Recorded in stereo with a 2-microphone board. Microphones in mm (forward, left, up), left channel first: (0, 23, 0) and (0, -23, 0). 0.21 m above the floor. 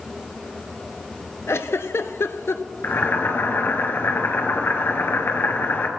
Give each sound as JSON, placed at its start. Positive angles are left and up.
{"t": 1.5, "sound": "a giggle", "side_deg": 80, "distance_m": 0.6}
{"t": 2.8, "sound": "boiling", "side_deg": 55, "distance_m": 1.5}